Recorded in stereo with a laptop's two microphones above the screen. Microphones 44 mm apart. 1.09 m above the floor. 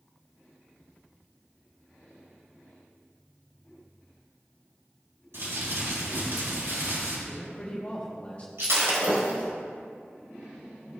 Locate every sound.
5.3 s crumpling: 75° right (ahead or behind), 3.5 m
7.3 s a man speaking: 30° left (ahead or behind), 1.8 m
8.6 s breaking glass: 70° right (ahead or behind), 2.5 m